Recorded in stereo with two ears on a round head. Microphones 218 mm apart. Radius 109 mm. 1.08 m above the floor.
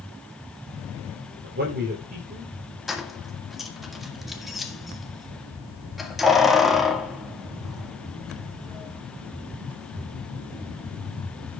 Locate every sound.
1.4 s a man speaking: 40° right (ahead or behind), 3.5 m; by 2.8 s 25° right (ahead or behind), 4 m
2.9 s keys jangling: centre (ahead or behind), 1.8 m